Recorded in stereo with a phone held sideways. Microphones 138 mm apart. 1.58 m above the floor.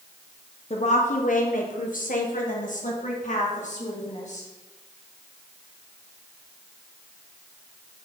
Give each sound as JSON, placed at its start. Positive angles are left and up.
{"t": 0.7, "sound": "a woman speaking", "side_deg": 50, "distance_m": 0.7}